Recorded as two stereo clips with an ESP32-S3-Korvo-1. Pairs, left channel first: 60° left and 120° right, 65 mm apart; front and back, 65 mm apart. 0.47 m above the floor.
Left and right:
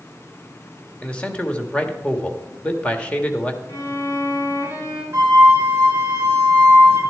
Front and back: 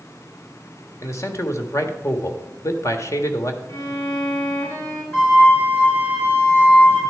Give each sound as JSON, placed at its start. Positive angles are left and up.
{"t": 1.0, "sound": "a man speaking", "azimuth_deg": -5, "distance_m": 1.3}
{"t": 3.7, "sound": "a violin", "azimuth_deg": 25, "distance_m": 5.5}
{"t": 5.1, "sound": "a flute", "azimuth_deg": -55, "distance_m": 6.5}